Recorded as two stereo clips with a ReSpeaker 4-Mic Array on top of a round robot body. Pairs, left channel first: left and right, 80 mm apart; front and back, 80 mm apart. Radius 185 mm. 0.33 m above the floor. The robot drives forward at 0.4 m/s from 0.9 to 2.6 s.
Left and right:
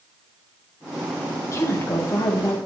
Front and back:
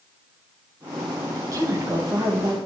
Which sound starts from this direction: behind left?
A woman speaking, at 1.4 s.